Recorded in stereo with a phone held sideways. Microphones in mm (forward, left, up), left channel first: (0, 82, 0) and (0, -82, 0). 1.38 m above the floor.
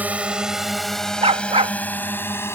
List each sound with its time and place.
0.0 s a drone: 10° right (ahead or behind); by 2.6 s 15° left (ahead or behind)
1.2 s a dog barking: 40° right (ahead or behind)